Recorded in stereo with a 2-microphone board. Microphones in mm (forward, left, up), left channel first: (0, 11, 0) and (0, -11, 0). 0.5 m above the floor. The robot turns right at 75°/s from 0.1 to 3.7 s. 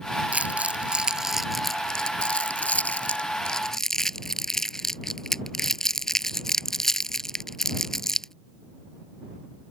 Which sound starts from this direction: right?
Crumpling, at 0.3 s.